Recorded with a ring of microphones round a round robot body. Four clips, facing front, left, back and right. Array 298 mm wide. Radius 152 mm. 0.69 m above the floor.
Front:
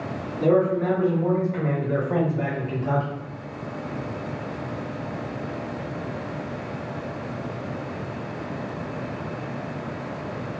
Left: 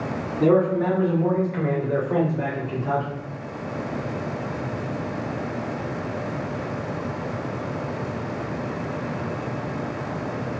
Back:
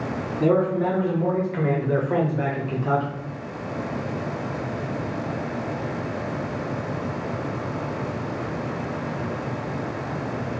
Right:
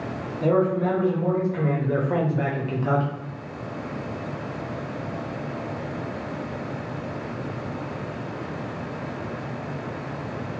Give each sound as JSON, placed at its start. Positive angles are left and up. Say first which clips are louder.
{"t": 0.4, "sound": "a man speaking", "louder": "left 2 dB, front 1 dB", "azimuth_deg": 110, "distance_m": 1.1}